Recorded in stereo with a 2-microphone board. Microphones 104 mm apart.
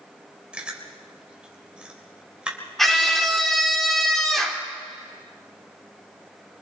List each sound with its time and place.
0.5 s chewing: 10° right (ahead or behind), 3 m
2.8 s a scream: 5° left (ahead or behind), 3 m